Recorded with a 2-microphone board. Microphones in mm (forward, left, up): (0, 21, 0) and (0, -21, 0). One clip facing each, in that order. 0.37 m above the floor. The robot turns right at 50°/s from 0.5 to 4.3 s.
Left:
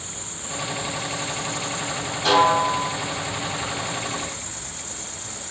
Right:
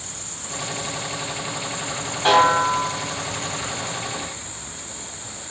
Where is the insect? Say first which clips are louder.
Left 1 dB; 150° left, 2 m; by 5.5 s 20° right, 2 m.